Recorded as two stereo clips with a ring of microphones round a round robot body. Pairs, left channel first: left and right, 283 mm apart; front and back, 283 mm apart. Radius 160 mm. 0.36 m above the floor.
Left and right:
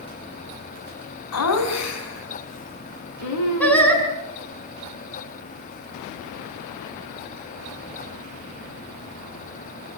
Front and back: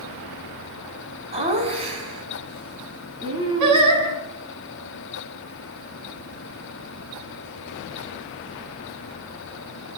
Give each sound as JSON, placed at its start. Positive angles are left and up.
{"t": 1.3, "sound": "laughter", "azimuth_deg": 110, "distance_m": 4.5}
{"t": 3.6, "sound": "singing", "azimuth_deg": 175, "distance_m": 4.5}